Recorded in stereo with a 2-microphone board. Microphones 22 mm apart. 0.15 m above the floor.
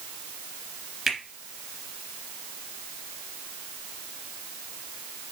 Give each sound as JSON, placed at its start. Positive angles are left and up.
{"t": 1.1, "sound": "a finger snap", "side_deg": 5, "distance_m": 1.8}